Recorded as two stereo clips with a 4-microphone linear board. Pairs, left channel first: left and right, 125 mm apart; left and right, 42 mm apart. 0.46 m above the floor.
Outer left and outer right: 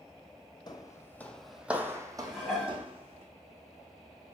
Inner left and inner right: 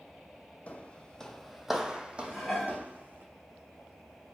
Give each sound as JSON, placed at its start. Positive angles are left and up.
{"t": 0.7, "sound": "footsteps", "side_deg": 35, "distance_m": 0.7}
{"t": 2.2, "sound": "dishes clattering", "side_deg": 0, "distance_m": 1.8}